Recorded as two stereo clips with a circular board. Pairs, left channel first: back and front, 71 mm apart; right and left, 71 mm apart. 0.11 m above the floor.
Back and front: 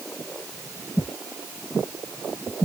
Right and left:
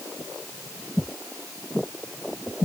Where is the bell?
I don't hear a bell.